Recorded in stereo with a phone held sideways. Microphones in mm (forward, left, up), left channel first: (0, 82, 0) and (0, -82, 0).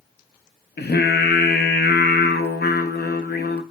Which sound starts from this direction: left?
Singing, at 0.8 s.